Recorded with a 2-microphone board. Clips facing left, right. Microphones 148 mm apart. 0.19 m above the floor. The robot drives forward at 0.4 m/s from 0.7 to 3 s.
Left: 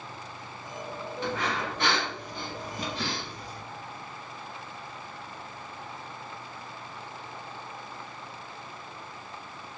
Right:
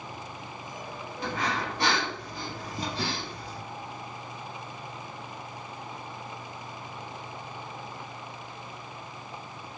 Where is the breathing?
35° right (ahead or behind), 1.0 m.